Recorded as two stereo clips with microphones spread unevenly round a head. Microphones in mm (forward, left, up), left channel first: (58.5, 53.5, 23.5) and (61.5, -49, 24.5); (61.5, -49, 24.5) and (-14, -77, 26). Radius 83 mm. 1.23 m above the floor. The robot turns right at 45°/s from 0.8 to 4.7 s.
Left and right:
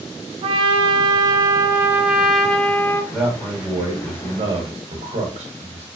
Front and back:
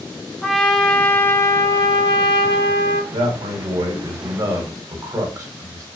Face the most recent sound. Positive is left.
turn(degrees=-110)